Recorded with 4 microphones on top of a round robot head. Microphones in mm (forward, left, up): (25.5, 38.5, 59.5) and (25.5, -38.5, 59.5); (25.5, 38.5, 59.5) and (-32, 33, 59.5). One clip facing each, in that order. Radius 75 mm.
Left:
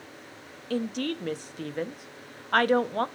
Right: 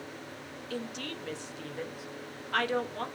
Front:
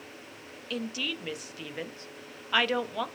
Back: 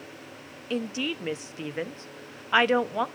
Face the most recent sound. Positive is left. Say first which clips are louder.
# left 9 dB, back 4 dB
turn(degrees=125)